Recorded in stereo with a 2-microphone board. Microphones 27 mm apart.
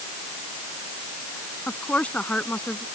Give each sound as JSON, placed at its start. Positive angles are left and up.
{"t": 1.7, "sound": "a woman speaking", "side_deg": 75}